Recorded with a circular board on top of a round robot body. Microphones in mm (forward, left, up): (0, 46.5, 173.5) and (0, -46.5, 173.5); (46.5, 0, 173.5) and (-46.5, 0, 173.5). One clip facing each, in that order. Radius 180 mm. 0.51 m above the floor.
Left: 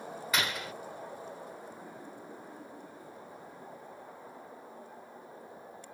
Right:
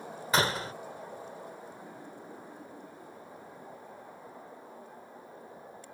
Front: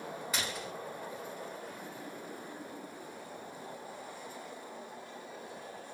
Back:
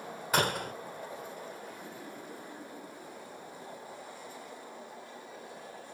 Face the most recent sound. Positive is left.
turn(degrees=-145)